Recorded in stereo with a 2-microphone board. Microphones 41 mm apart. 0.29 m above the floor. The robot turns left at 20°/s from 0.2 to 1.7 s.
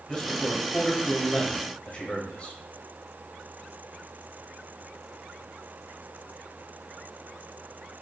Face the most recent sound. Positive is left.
turn(degrees=95)